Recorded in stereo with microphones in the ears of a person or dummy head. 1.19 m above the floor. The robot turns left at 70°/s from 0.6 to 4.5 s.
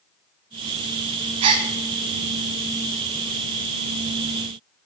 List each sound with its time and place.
1.4 s a gasp: 35° right (ahead or behind), 1.4 m; by 1.7 s 20° right (ahead or behind), 1.4 m